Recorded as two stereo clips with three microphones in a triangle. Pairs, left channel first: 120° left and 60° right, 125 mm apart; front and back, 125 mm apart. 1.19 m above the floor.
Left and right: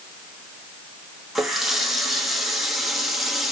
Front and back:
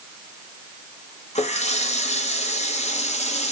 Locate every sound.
1.4 s a running tap: 30° left, 1.0 m